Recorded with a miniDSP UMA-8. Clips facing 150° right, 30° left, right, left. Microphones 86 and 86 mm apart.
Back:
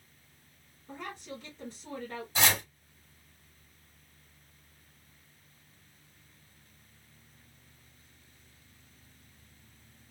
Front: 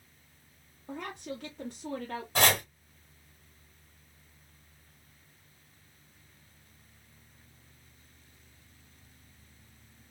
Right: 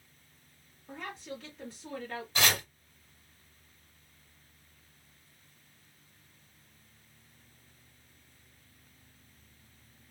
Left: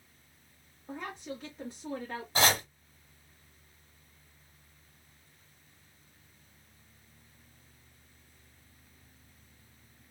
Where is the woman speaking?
20° left, 1.2 m.